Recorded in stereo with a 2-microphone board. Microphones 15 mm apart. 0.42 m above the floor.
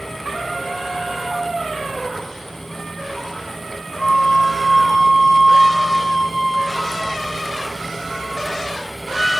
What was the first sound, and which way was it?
A flute, 60° left (ahead or behind).